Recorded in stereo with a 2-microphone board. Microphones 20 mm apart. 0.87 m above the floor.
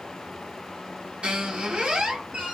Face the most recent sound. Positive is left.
turn(degrees=-75)  # may be behind; listen again after turning